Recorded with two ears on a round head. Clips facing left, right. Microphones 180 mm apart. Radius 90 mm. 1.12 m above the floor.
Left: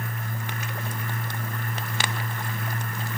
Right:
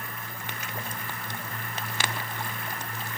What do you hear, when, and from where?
Only background noise.